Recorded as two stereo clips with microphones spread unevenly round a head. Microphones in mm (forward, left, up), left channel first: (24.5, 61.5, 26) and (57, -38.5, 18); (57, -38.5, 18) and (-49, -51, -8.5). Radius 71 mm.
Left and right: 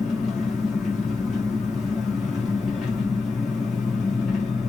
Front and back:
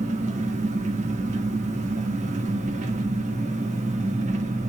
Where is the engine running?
165° right, 1.7 m.